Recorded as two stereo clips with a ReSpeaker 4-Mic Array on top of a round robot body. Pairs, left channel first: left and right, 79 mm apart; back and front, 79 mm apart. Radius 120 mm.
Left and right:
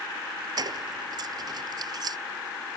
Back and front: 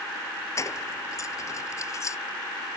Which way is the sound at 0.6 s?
125° right.